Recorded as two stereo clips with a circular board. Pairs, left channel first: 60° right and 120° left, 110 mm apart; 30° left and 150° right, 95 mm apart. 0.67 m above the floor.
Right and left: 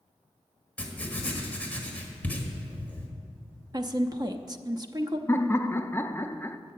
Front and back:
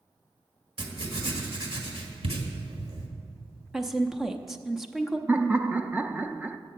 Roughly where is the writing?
Behind right.